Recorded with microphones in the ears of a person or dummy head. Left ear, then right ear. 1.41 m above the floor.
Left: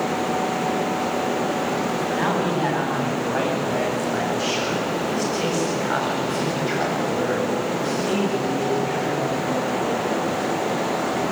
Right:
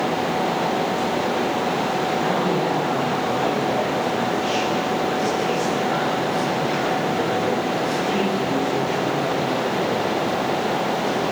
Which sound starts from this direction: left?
A man speaking, at 2.1 s.